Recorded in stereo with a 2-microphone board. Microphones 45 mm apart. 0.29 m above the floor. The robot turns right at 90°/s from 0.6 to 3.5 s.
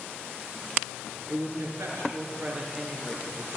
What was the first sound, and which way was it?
A woman speaking, 145° right.